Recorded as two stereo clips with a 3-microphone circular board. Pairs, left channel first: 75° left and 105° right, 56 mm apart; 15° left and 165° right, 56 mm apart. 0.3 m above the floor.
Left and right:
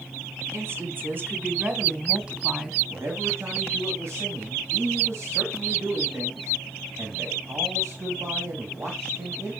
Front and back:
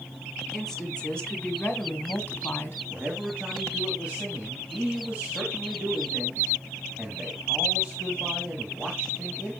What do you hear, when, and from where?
0.5 s a woman speaking: 65° right, 2.5 m; by 2.8 s 25° right, 1.9 m
2.9 s a man speaking: 105° right, 2.5 m